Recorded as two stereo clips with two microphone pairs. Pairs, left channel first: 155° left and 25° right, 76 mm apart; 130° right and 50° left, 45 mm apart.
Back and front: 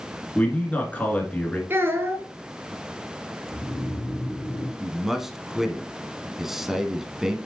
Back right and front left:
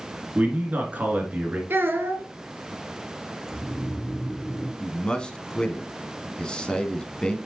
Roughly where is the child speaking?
Ahead left.